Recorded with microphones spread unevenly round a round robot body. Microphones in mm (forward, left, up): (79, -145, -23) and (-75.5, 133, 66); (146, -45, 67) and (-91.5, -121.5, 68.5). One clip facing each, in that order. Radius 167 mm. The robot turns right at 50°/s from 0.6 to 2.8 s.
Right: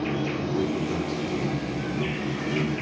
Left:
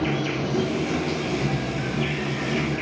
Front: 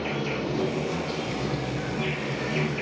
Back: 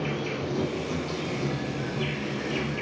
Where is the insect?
140° left, 1.8 m; by 2.8 s 110° right, 1.8 m.